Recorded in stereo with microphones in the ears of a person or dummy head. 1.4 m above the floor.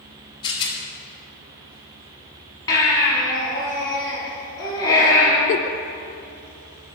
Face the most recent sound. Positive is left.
turn(degrees=40)  # may be behind; listen again after turning